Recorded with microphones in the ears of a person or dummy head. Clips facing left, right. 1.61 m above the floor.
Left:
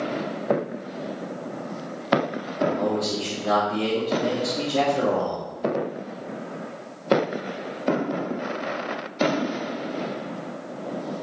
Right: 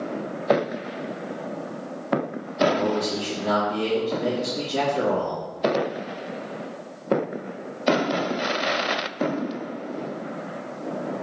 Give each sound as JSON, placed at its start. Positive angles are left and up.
{"t": 2.6, "sound": "a man speaking", "side_deg": -70, "distance_m": 3.0}